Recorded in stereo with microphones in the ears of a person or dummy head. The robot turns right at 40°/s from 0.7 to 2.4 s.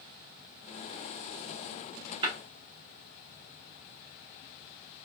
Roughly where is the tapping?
Right.